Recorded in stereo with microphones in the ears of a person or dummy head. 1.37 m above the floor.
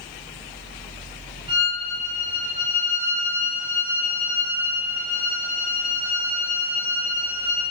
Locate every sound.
1.5 s a violin: 35° right (ahead or behind), 2.5 m